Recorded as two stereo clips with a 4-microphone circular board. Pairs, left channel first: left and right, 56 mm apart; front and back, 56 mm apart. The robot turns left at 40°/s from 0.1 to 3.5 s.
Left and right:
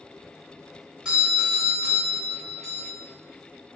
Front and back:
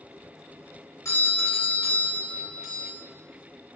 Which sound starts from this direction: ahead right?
A doorbell, at 1.1 s.